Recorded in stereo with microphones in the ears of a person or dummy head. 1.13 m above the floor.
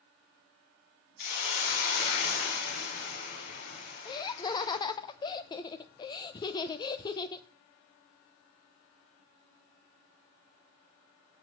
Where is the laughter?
20° left (ahead or behind), 0.7 m.